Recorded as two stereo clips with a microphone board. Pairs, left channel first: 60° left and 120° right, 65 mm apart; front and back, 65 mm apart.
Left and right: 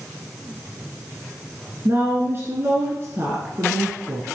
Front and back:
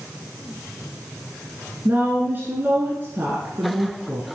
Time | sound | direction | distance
1.9 | a woman speaking | 140° right | 1.5 m